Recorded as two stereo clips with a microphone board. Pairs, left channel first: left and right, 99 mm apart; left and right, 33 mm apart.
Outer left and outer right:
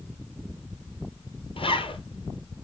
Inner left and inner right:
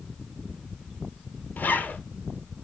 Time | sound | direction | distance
1.6 | a zipper | 65° left (ahead or behind) | 1.8 m